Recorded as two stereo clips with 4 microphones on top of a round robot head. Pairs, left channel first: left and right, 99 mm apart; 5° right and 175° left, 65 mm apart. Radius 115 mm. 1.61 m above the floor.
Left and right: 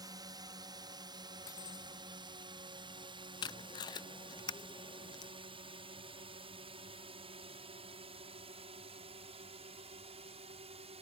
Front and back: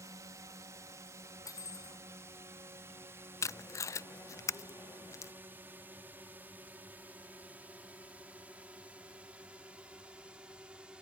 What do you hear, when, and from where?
0.0 s a drone: 140° right; by 11.0 s 105° right
1.4 s cutlery clinking: 30° left
3.4 s tape being pulled: 35° left